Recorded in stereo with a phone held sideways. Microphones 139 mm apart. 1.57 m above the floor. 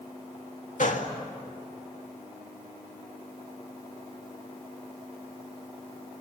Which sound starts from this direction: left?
A gunshot, at 0.8 s.